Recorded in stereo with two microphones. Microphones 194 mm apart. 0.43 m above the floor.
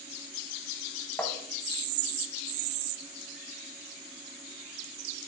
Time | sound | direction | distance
1.2 | tapping | 10° left (ahead or behind) | 1.3 m